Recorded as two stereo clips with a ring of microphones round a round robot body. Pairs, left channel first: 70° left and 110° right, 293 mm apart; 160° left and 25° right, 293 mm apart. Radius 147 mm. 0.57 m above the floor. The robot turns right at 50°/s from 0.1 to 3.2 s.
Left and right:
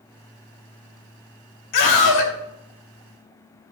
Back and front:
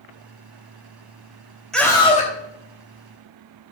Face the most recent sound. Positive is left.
turn(degrees=145)